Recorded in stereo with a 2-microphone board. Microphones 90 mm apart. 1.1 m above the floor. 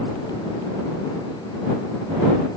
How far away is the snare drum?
No snare drum in this recording.